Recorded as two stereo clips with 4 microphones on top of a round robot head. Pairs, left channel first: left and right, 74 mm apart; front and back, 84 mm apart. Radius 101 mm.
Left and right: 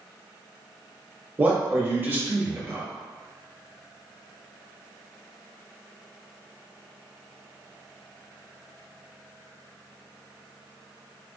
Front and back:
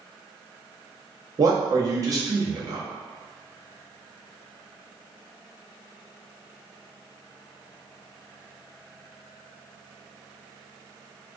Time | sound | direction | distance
1.4 | a man speaking | 145° right | 0.9 m